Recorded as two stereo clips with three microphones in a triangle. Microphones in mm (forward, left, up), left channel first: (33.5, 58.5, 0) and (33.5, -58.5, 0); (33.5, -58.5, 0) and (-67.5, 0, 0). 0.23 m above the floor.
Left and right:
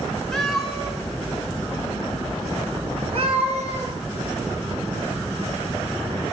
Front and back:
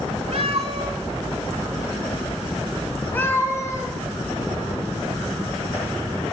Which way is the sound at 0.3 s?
175° left.